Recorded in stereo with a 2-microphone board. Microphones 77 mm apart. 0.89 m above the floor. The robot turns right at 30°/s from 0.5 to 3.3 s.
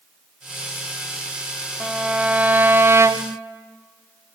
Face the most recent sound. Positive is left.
turn(degrees=-130)